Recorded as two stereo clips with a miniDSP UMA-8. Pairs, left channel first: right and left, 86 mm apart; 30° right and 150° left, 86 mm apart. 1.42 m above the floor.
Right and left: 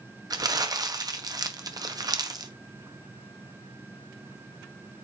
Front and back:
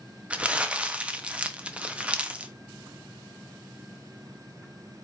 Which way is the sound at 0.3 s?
75° left.